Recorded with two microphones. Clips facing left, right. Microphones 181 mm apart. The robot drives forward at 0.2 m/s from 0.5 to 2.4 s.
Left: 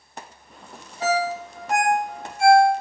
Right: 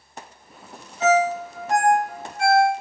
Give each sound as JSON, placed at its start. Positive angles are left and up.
{"t": 1.0, "sound": "a ringtone", "side_deg": 15, "distance_m": 0.9}